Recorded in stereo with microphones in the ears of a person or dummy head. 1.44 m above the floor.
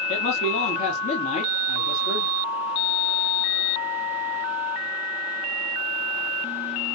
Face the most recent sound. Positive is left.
turn(degrees=45)  # may be behind; listen again after turning